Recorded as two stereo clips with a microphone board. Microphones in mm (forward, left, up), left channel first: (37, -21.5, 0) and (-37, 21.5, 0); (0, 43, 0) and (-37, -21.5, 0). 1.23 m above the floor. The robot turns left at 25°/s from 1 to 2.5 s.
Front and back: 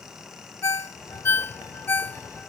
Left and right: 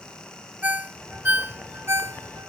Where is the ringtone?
60° right; by 2.5 s 100° right.